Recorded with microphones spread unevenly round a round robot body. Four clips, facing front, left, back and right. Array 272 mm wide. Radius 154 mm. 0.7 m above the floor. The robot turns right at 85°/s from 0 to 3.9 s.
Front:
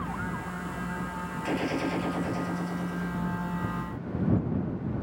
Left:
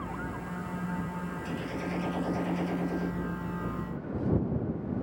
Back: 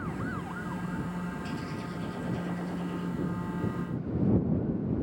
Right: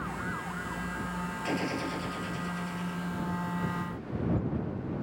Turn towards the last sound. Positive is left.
turn(degrees=175)